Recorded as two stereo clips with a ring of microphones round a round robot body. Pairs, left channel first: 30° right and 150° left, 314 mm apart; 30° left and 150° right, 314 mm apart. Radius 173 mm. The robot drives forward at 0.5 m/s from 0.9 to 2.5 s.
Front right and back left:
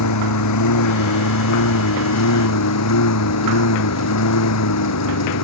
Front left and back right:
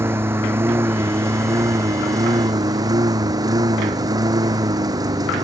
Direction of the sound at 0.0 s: 65° right.